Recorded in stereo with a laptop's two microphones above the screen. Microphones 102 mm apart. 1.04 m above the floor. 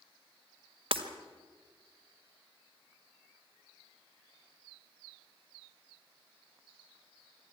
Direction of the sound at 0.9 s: 65° right (ahead or behind).